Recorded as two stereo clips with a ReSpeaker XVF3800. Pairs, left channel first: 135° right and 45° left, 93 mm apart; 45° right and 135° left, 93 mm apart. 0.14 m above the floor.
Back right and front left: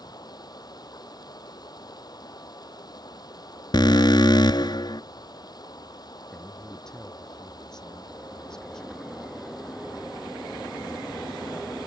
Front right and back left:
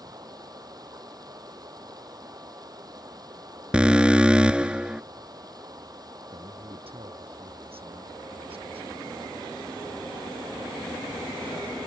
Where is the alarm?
150° right.